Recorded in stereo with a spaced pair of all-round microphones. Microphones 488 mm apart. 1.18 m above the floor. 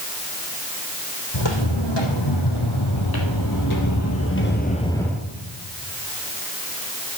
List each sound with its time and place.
1.3 s footsteps: 65° left (ahead or behind), 4 m; by 5.2 s 5° right (ahead or behind), 1.6 m